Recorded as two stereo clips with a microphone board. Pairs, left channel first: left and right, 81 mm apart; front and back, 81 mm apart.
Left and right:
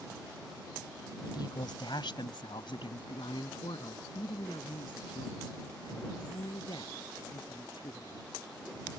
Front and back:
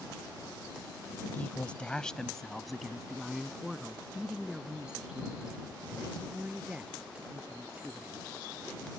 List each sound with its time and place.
1.2 s a woman speaking: 65° left; by 8.3 s 105° left